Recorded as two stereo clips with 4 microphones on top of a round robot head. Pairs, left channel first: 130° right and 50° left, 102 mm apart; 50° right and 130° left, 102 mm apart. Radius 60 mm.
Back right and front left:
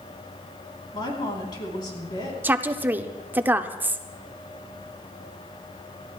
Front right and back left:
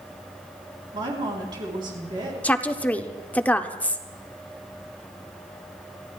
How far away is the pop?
No pop in this recording.